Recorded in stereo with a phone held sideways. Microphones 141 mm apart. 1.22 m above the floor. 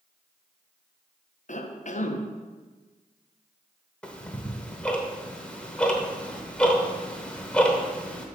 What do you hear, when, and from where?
1.5 s a cough: 60° left (ahead or behind), 0.8 m
4.0 s ticking: 10° left (ahead or behind), 1.0 m